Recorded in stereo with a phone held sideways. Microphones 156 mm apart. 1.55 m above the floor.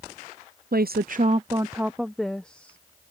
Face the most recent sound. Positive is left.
turn(degrees=10)  # may be behind; listen again after turning